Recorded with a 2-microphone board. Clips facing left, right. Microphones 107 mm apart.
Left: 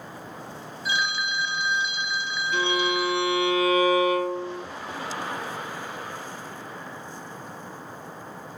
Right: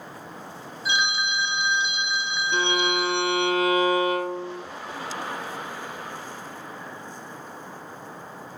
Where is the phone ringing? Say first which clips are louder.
Right 2 dB; 20° right (ahead or behind), 0.8 m.